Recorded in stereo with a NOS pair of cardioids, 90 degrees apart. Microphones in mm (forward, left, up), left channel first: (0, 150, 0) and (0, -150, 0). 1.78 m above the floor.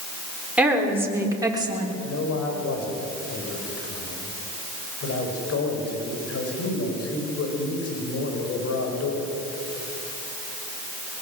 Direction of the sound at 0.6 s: 5° right.